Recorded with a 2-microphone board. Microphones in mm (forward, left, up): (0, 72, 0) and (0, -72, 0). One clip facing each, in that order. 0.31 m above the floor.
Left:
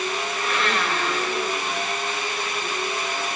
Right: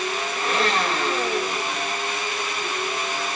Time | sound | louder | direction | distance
0.4 | a blender | right 4 dB | 30° right (ahead or behind) | 5.5 m